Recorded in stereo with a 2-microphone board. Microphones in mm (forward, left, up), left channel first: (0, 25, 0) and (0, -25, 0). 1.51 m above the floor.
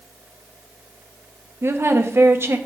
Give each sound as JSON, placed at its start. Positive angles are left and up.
{"t": 1.6, "sound": "a woman speaking", "side_deg": -60, "distance_m": 1.0}